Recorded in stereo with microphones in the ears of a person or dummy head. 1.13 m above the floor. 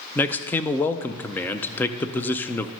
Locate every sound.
0.1 s a man speaking: 10° left (ahead or behind), 0.5 m